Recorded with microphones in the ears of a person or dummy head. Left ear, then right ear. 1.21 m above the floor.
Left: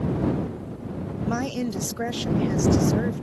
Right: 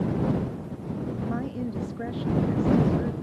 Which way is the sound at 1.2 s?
85° left.